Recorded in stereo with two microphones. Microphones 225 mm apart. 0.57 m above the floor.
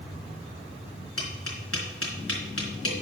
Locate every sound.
1.2 s tapping: 85° left, 3 m